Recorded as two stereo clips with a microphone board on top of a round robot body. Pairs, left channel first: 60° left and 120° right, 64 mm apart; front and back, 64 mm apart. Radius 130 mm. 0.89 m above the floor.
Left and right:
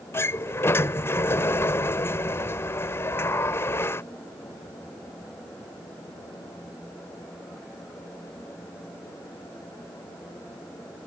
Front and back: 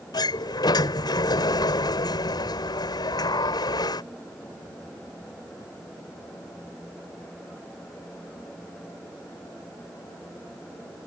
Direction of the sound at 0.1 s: 5° left.